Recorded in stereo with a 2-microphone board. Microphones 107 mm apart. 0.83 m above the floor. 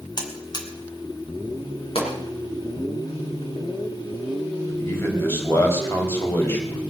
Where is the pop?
60° left (ahead or behind), 5 m.